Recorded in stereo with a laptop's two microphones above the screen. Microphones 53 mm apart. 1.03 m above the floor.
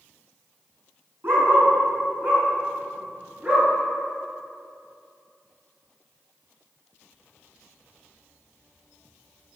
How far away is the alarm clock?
I don't hear an alarm clock.